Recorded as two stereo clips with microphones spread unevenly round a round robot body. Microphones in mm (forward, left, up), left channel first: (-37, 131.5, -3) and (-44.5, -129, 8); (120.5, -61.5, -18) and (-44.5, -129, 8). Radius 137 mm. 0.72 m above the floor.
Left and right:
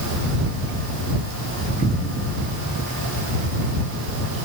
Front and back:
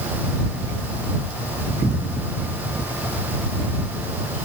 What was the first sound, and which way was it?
Only background noise.